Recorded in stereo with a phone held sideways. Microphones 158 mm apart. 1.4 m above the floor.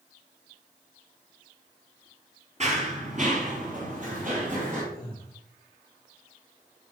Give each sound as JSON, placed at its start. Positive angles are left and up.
{"t": 2.6, "sound": "running footsteps", "side_deg": -50, "distance_m": 2.0}
{"t": 4.9, "sound": "breathing", "side_deg": -70, "distance_m": 3.5}